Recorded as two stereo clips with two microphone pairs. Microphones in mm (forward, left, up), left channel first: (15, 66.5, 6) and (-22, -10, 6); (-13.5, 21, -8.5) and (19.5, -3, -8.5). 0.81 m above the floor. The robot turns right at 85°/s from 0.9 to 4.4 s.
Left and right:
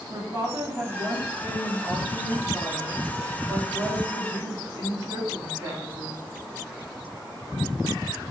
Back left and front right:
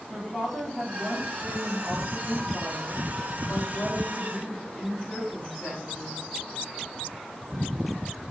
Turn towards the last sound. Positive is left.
turn(degrees=-145)